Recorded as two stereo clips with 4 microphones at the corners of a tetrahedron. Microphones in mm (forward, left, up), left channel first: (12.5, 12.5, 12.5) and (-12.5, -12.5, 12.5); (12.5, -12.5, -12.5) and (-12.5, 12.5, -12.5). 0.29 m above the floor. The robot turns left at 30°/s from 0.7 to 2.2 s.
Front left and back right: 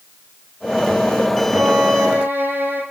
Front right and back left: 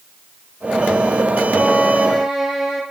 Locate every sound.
1.5 s a violin: 135° right, 6.5 m; by 2.8 s 155° right, 6.5 m